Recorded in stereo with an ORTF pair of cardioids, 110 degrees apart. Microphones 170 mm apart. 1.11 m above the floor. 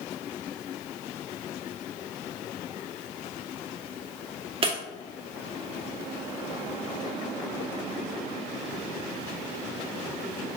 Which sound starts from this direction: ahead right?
Breaking glass, at 4.6 s.